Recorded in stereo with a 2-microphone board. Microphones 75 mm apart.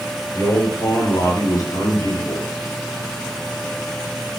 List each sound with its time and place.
0.3 s a man speaking: 50° left (ahead or behind), 5.5 m; by 2.5 s 60° left (ahead or behind), 5 m